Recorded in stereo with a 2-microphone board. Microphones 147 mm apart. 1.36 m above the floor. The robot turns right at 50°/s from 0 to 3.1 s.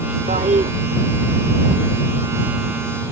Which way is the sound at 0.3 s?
75° right (ahead or behind).